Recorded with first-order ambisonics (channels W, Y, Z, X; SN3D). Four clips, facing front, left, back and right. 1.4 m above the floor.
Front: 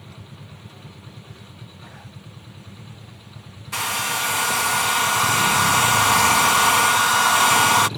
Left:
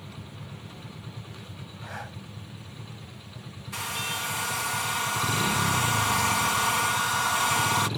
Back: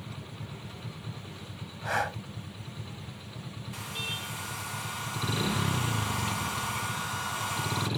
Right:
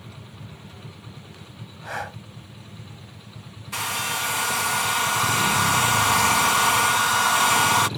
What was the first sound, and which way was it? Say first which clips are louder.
Breathing: right 8 dB, back 13 dB; 150° right.